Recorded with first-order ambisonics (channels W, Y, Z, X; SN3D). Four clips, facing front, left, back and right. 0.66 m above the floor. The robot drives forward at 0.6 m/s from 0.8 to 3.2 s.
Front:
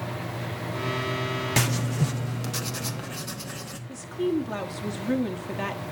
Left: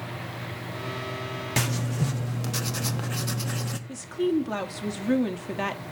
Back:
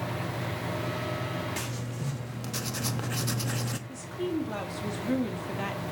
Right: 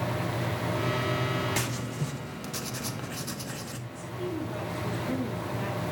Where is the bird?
I don't hear a bird.